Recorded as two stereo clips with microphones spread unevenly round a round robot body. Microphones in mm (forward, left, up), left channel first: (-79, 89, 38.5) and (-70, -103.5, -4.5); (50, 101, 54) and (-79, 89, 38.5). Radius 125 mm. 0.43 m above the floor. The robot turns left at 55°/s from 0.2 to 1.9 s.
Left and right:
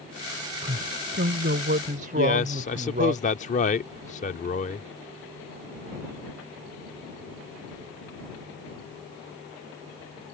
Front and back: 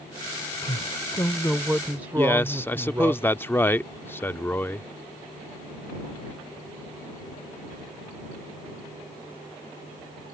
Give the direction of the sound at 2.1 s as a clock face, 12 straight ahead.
10 o'clock.